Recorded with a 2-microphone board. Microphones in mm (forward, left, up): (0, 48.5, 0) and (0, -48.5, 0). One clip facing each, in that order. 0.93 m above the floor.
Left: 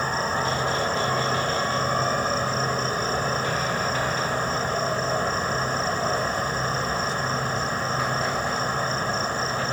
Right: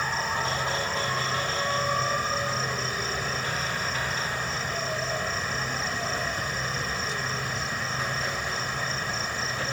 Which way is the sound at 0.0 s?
40° left (ahead or behind).